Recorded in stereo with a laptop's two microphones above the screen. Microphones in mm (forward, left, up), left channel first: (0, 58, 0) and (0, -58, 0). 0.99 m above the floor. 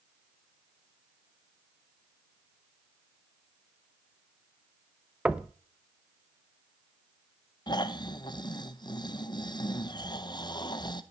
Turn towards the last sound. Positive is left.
turn(degrees=40)  # may be behind; listen again after turning